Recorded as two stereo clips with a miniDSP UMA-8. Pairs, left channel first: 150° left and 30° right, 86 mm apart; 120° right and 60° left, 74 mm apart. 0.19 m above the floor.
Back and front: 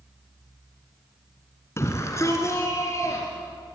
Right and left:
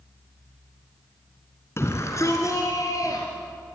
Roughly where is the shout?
Behind.